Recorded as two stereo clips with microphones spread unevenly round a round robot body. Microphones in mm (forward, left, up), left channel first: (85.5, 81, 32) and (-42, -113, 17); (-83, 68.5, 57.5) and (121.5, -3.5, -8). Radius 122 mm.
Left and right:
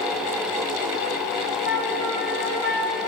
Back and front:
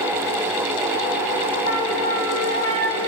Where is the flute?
165° right, 2.5 m.